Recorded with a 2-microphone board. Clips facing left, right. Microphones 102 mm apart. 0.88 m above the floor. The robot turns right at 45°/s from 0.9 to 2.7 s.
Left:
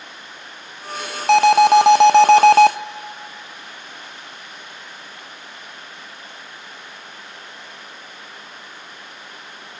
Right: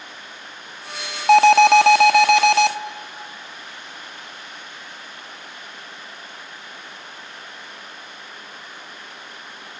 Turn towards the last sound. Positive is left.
turn(degrees=60)